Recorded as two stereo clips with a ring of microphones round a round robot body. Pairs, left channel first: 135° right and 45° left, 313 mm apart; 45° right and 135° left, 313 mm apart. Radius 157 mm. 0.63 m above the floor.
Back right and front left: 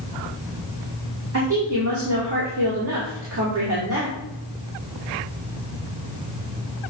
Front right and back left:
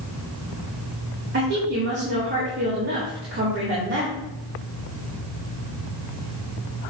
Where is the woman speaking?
85° left, 2.5 m.